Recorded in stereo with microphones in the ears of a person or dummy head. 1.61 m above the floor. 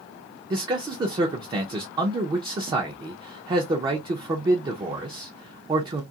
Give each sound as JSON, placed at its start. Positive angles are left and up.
{"t": 0.5, "sound": "a man speaking", "side_deg": -25, "distance_m": 0.5}